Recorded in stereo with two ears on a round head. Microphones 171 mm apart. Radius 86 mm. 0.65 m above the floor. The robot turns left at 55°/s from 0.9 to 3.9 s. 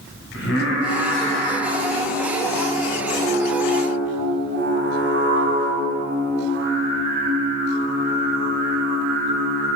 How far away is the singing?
About 3 m.